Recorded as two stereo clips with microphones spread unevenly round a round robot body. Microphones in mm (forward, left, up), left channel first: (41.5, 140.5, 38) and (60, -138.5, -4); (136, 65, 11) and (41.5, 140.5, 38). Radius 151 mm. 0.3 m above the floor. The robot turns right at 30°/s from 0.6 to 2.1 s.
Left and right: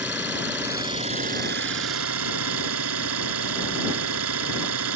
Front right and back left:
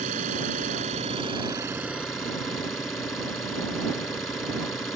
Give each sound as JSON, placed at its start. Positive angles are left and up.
{"t": 0.0, "sound": "an engine running", "azimuth_deg": -170}